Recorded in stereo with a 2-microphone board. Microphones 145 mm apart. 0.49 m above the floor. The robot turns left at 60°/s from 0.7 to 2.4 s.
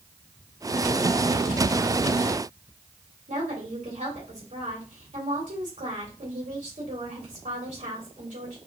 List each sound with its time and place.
3.3 s a woman speaking: 55° right (ahead or behind), 2.5 m